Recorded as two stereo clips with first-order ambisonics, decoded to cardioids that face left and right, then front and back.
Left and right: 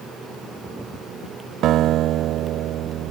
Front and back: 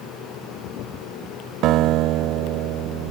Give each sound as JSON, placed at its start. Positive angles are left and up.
{"t": 1.6, "sound": "a guitar", "azimuth_deg": -140}